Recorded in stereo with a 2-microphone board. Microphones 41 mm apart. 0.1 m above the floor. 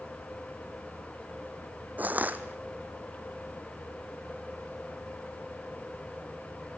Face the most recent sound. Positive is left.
turn(degrees=-40)  # may be behind; listen again after turning